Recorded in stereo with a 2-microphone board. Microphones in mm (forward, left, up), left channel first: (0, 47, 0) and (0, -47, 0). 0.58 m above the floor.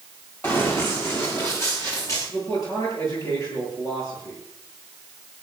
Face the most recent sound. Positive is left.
turn(degrees=40)  # may be behind; listen again after turning